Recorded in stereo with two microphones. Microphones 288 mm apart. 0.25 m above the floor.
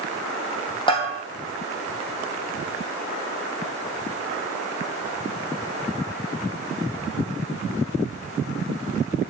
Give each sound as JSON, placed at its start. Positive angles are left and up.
{"t": 0.9, "sound": "a bell", "side_deg": 15, "distance_m": 3.0}